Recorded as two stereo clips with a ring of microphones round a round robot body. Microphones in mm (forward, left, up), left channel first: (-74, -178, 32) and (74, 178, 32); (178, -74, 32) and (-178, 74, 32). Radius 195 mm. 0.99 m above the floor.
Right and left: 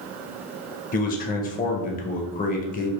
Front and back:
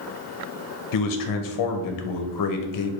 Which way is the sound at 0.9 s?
45° right.